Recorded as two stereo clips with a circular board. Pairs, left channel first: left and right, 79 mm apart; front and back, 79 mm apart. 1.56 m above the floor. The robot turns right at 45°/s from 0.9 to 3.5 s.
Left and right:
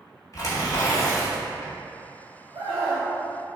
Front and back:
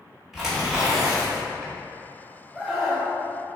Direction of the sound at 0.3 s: 95° left.